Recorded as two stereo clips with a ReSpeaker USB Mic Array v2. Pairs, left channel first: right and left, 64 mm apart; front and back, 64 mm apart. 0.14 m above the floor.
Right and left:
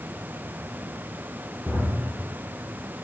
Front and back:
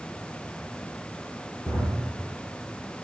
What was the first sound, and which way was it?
A drawer, 5° left.